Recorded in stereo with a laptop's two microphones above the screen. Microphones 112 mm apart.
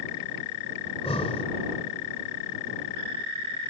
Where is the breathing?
60° left (ahead or behind).